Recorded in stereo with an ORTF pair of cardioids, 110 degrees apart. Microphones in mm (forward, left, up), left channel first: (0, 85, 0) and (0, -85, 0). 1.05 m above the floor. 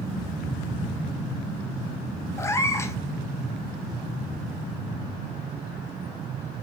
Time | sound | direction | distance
2.4 | a cat meowing | 15° left | 0.7 m